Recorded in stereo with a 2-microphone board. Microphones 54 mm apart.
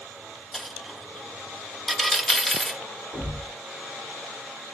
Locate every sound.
0.5 s a dropped coin: 5° left (ahead or behind), 0.6 m
3.1 s a thud: 85° left, 2.5 m